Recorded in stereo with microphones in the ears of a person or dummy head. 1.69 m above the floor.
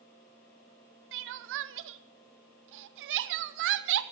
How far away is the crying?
About 0.8 m.